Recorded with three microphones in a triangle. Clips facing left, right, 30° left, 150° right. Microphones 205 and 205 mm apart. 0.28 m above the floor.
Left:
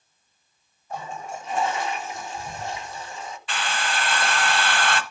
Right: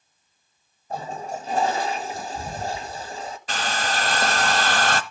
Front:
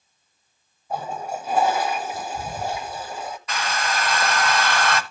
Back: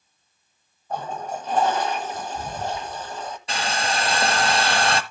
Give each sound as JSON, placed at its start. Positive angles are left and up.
{"t": 0.9, "sound": "a toilet flushing", "azimuth_deg": -50, "distance_m": 1.0}
{"t": 3.5, "sound": "a hair dryer", "azimuth_deg": -105, "distance_m": 0.9}